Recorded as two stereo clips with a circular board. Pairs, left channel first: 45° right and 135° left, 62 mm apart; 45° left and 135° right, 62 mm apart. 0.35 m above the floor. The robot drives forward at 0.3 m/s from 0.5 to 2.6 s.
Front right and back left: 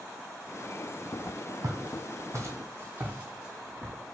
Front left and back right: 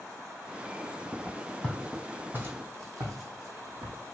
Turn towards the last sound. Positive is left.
turn(degrees=-140)